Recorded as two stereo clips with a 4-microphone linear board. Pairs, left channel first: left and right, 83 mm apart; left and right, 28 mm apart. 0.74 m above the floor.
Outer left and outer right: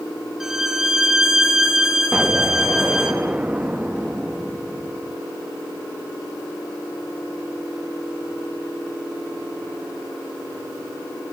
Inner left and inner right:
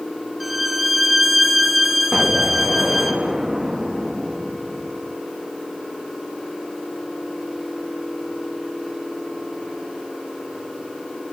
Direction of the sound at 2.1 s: 15° right (ahead or behind).